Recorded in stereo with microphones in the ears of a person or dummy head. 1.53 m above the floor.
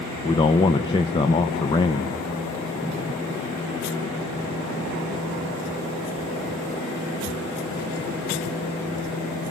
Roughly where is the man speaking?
Left.